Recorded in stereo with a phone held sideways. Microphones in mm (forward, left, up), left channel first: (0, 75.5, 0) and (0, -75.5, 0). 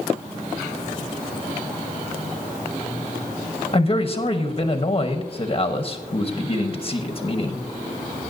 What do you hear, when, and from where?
3.7 s a man speaking: 40° left (ahead or behind), 1.0 m